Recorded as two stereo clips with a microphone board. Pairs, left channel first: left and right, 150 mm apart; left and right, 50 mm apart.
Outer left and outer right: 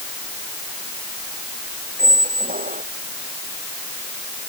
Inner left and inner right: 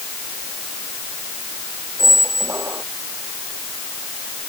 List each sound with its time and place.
2.0 s a squeak: 75° right (ahead or behind)